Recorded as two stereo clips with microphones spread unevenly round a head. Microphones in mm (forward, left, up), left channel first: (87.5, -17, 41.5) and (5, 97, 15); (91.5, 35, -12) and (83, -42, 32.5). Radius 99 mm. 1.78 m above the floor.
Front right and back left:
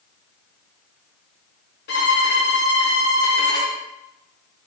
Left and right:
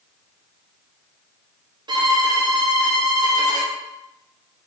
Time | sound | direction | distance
1.9 | a violin | 85° right | 0.6 m